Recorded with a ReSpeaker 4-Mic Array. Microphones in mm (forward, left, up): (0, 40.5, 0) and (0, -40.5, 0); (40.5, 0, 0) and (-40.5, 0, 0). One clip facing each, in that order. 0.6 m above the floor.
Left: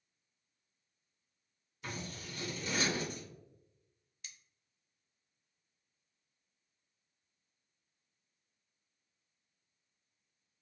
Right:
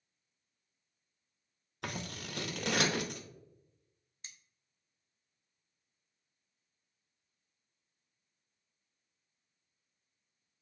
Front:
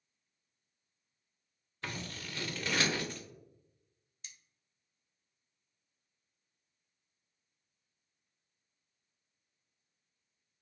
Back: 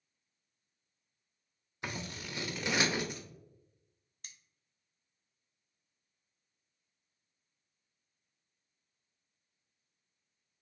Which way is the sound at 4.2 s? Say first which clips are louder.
Even, even; 145° right.